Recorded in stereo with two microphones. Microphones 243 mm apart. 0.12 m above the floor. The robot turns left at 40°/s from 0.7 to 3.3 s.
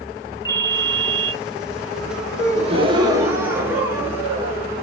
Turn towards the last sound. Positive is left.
turn(degrees=-165)